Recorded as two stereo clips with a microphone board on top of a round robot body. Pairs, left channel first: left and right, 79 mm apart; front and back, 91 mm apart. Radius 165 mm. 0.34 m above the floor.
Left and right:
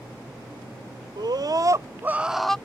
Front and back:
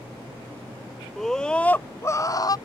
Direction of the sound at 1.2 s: 85° right.